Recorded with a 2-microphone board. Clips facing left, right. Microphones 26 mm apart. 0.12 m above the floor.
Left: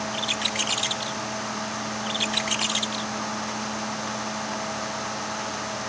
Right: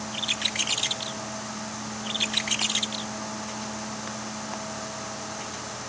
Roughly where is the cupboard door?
I don't hear a cupboard door.